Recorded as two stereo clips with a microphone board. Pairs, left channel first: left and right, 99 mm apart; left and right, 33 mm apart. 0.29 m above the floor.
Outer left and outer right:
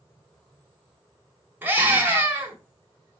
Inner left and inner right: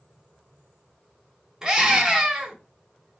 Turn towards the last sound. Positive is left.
turn(degrees=-20)  # may be behind; listen again after turning